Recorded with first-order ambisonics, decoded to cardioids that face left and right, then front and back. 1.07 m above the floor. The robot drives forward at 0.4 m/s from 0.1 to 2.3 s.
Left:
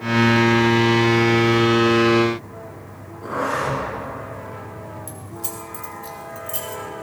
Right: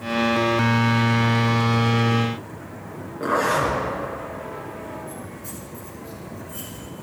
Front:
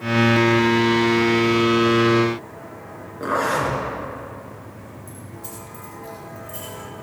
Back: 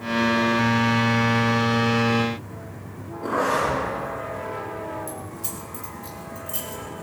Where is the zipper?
40° right, 6.5 m.